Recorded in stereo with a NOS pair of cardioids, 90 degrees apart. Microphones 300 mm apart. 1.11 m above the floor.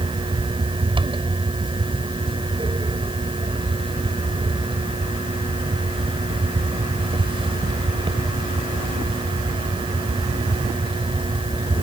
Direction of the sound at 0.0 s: 15° right.